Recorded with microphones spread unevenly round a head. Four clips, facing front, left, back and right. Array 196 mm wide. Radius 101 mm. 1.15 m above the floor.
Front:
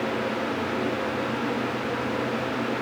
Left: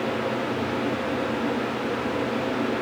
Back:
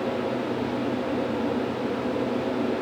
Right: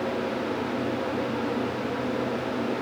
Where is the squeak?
I don't hear a squeak.